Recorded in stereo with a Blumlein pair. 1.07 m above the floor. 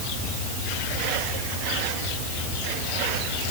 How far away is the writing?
I don't hear writing.